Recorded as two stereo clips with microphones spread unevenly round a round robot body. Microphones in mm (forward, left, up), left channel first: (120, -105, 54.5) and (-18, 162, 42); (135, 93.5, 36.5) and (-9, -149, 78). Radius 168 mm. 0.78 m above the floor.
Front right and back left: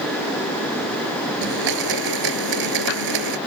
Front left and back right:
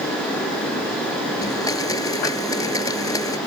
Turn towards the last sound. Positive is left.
turn(degrees=140)